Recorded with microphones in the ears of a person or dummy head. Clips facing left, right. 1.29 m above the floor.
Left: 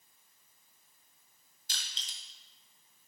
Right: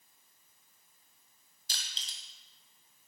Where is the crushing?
35° right (ahead or behind), 2 m.